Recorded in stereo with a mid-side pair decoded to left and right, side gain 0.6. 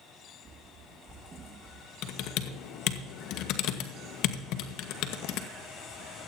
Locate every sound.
0.5 s running footsteps: 30° right, 4.5 m; by 1.9 s 35° right, 4 m
2.0 s typing on a keyboard: 70° left, 1.5 m